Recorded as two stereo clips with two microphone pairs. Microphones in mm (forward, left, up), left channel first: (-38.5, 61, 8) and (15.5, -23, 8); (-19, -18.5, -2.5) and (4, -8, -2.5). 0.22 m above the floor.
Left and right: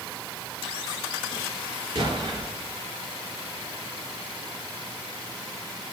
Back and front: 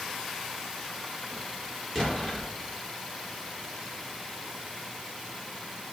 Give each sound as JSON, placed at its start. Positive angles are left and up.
{"t": 1.9, "sound": "an explosion", "azimuth_deg": -95, "distance_m": 4.0}